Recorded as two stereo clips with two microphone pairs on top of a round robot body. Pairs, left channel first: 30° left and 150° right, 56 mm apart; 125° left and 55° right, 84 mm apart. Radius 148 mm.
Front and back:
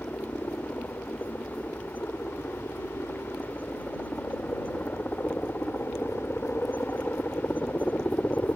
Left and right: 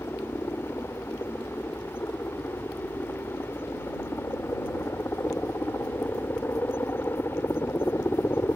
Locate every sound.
0.0 s a helicopter: 70° left